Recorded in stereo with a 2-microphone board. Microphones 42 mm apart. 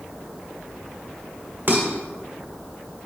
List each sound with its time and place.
1.7 s dishes clattering: 50° right (ahead or behind), 1.9 m